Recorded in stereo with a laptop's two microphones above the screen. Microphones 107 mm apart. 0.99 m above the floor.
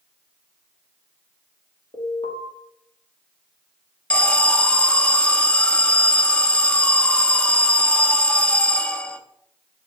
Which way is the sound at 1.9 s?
65° left (ahead or behind).